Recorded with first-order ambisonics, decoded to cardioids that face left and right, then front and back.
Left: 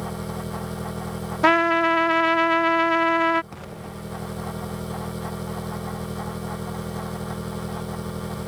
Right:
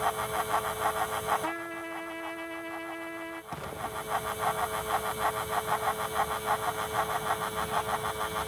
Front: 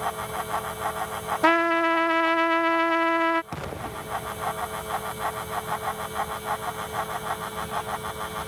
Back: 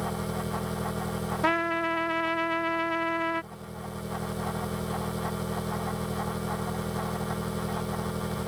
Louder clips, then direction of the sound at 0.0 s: Right 3 dB, front 4 dB; 125° left.